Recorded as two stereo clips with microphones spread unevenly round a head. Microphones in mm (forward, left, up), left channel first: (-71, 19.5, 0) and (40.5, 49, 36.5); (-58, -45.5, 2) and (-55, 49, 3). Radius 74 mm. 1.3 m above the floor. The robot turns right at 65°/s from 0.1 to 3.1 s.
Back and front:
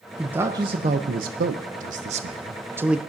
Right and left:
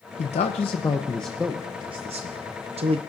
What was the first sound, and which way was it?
A man speaking, 75° right.